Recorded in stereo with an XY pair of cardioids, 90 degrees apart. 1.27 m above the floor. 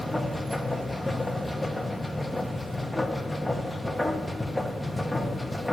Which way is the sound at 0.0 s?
10° left.